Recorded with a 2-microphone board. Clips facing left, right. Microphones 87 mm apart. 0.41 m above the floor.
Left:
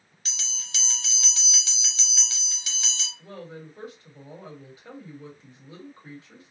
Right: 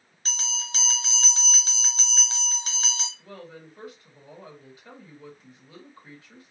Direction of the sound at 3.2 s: 30° left (ahead or behind).